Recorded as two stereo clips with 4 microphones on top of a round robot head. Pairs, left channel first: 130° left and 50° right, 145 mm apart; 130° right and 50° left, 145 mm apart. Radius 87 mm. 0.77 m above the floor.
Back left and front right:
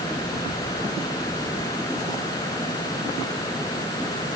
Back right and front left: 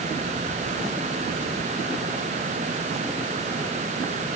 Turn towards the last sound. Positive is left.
No sound to turn to.